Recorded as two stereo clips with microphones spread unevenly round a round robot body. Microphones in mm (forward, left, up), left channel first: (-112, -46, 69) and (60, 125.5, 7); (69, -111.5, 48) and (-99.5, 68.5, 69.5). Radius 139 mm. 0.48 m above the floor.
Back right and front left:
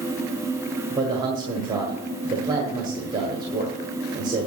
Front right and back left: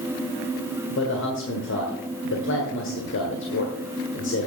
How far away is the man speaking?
About 1.7 m.